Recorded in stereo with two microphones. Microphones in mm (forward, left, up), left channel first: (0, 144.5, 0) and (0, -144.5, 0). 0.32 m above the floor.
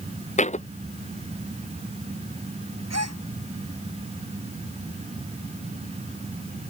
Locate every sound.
0.4 s a thud: 25° left (ahead or behind)
2.9 s a gasp: 65° right (ahead or behind)